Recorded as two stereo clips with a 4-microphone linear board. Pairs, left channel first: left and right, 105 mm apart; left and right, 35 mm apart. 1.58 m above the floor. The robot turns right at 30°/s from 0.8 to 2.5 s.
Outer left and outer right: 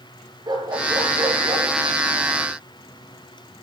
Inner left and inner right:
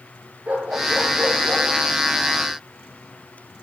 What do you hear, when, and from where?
0.5 s a dog barking: 40° right (ahead or behind), 8 m; by 1.7 s 15° right (ahead or behind), 8 m